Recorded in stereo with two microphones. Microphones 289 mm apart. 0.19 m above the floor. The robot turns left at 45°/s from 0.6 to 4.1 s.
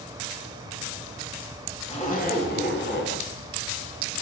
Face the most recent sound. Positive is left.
turn(degrees=45)